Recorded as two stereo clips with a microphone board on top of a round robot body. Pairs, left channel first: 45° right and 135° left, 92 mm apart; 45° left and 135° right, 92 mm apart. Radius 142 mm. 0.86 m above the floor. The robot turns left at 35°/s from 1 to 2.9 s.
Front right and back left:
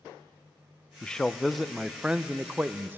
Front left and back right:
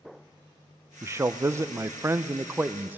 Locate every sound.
1.0 s a man speaking: 115° right, 0.5 m; by 3.0 s straight behind, 0.5 m